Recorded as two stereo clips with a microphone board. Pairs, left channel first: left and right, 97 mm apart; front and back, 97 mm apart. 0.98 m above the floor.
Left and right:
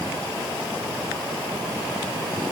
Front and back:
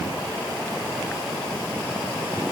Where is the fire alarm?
No fire alarm in this recording.